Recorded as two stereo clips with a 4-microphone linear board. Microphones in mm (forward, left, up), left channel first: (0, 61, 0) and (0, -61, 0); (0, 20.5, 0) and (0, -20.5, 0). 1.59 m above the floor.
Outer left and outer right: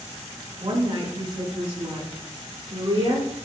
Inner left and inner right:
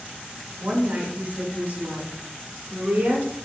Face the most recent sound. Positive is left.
turn(degrees=-55)  # may be behind; listen again after turning